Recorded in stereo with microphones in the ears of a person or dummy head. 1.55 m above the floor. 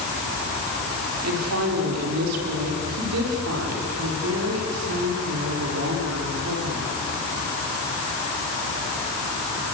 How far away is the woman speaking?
About 5 m.